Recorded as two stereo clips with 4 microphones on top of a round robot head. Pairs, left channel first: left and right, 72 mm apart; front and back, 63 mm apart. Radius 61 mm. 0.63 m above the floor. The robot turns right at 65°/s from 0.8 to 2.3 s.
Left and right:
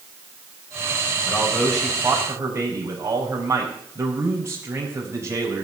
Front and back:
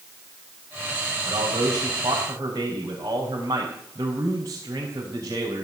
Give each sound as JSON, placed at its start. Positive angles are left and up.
{"t": 1.3, "sound": "a man speaking", "azimuth_deg": 150, "distance_m": 4.0}